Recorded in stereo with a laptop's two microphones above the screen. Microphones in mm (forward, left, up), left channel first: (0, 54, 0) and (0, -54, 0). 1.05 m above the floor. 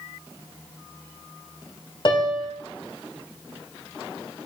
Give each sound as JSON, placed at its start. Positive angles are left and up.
{"t": 2.0, "sound": "a piano", "side_deg": 45, "distance_m": 1.2}